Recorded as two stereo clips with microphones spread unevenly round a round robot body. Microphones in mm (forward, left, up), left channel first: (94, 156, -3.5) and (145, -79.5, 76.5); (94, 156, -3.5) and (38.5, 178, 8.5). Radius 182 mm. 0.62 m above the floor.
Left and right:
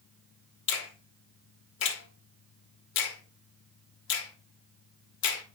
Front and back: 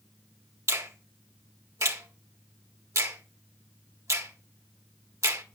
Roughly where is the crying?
No crying in this recording.